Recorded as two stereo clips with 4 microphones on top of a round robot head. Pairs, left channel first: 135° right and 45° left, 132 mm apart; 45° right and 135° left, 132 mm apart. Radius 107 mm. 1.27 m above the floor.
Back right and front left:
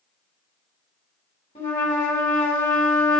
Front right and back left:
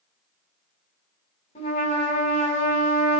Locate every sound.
1.6 s a trumpet: 85° right, 2.5 m